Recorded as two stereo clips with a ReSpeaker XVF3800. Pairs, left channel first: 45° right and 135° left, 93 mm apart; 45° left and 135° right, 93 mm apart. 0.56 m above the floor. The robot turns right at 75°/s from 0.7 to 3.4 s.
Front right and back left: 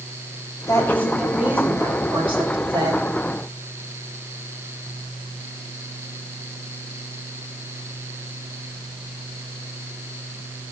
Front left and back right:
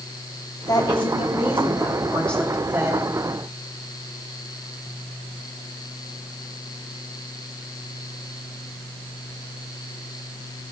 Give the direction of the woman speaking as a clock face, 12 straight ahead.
12 o'clock.